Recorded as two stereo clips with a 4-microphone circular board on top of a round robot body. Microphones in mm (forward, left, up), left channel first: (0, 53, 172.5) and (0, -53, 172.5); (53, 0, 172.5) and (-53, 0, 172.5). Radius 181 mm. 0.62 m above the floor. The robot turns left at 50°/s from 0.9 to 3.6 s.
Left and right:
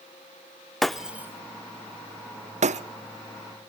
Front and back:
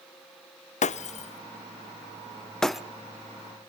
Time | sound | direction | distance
0.8 | breaking glass | straight ahead | 0.7 m